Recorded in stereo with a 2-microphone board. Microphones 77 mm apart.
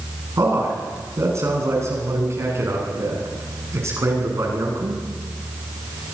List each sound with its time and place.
0.4 s a man speaking: 40° right (ahead or behind), 9 m